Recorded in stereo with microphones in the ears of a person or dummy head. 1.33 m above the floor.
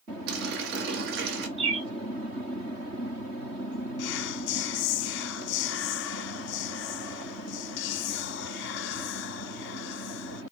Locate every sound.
0.3 s a running tap: 60° right (ahead or behind), 1.3 m
1.6 s a bird: 30° right (ahead or behind), 1.2 m
4.0 s whispering: 55° left (ahead or behind), 0.5 m